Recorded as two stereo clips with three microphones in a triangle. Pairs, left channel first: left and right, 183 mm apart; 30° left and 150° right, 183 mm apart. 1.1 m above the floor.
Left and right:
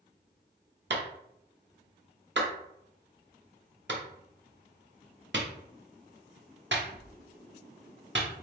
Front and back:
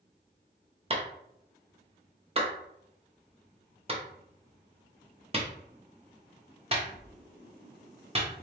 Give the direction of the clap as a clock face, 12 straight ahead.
3 o'clock.